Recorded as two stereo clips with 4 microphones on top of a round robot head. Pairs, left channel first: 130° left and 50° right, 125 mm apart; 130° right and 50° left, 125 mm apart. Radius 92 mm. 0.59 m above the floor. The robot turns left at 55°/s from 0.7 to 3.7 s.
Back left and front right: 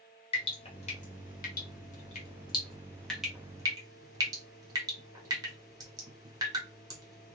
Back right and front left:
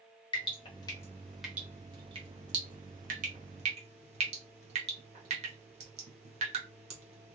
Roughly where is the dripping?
Behind.